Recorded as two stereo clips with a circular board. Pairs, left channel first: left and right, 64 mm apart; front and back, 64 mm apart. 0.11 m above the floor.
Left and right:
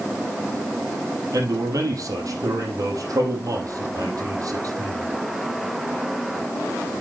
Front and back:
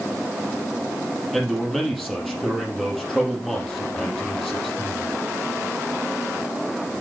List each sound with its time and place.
1.3 s a man speaking: 90° right, 4 m